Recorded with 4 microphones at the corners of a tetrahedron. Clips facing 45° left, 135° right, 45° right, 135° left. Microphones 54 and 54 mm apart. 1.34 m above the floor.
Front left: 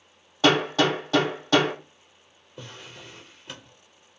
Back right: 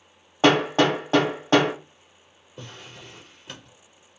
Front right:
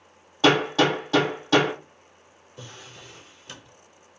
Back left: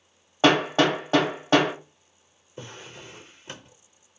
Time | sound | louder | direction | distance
0.4 | hammering | back right 2 dB, even | 170° right | 1.3 m
2.6 | a drawer | even, back left 3 dB | 135° left | 0.6 m